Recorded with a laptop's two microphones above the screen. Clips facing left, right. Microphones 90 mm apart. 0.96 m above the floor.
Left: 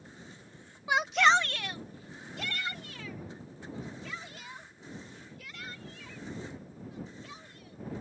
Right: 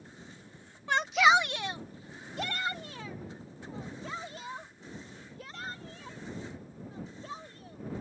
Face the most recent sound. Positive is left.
turn(degrees=-35)  # may be behind; listen again after turning